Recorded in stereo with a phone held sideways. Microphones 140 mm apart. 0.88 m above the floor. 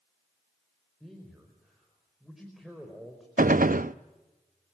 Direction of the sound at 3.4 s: 85° right.